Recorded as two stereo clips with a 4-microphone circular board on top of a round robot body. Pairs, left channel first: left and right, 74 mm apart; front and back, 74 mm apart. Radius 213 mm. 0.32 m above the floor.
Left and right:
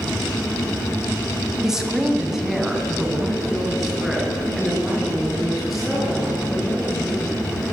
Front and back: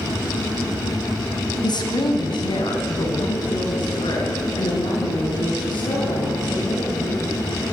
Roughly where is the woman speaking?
Ahead.